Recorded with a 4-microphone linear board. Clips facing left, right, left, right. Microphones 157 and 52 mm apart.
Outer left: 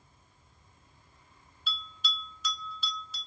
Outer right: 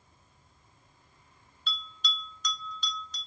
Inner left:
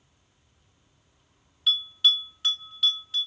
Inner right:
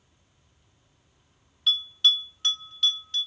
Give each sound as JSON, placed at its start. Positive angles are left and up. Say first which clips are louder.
{"t": 1.7, "sound": "a bell", "louder": "outer right 1 dB, even", "side_deg": 5, "distance_m": 0.6}